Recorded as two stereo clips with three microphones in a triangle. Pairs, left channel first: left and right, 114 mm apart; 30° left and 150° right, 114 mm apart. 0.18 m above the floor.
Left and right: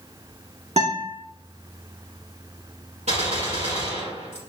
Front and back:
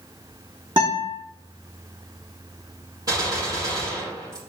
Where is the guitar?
100° right, 4.5 m.